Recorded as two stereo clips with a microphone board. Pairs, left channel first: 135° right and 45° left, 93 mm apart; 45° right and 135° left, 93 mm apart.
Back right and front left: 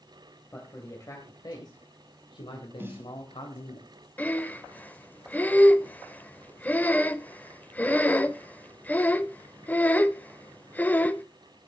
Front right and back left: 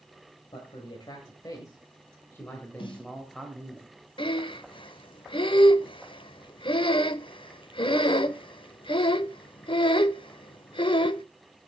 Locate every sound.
0.5 s a man speaking: 75° right, 3 m; by 3.8 s 135° right, 2.5 m
2.8 s a snare drum: 20° right, 1.7 m
4.2 s breathing: 65° right, 0.6 m